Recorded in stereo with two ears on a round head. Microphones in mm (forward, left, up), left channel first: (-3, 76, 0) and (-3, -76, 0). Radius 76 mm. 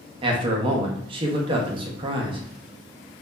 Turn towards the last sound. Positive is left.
turn(degrees=-30)  # may be behind; listen again after turning